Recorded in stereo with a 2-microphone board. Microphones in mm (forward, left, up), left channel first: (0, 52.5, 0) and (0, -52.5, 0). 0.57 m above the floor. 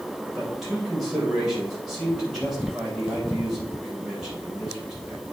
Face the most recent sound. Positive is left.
turn(degrees=-5)  # may be behind; listen again after turning